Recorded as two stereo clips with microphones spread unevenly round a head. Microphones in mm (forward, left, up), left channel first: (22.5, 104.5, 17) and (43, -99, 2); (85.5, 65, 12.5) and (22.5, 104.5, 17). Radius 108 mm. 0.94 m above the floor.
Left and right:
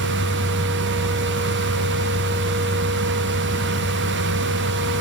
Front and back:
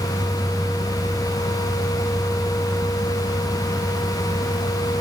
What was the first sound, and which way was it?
Only background noise.